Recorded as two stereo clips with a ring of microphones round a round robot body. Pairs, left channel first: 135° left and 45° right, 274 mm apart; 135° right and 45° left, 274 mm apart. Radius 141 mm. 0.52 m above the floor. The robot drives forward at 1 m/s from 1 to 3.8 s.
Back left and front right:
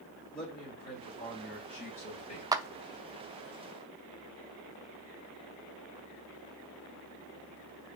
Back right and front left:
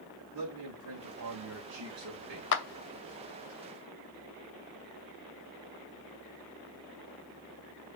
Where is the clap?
115° right, 0.7 m; by 2.6 s 130° right, 0.8 m.